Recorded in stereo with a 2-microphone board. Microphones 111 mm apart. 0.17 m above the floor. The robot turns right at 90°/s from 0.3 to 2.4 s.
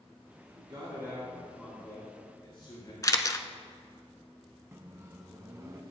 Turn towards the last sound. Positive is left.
turn(degrees=-25)  # may be behind; listen again after turning